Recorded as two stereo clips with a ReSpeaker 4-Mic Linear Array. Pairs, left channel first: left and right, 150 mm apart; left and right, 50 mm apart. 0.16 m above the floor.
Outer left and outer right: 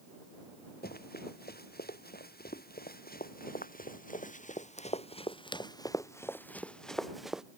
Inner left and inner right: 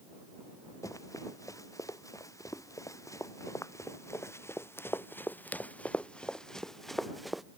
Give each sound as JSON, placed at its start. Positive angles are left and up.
{"t": 0.8, "sound": "running footsteps", "side_deg": 85}